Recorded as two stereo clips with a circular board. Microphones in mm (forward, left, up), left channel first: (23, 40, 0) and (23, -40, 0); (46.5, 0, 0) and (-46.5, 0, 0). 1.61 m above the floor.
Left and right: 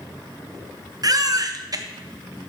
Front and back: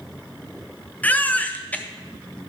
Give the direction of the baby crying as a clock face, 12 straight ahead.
2 o'clock.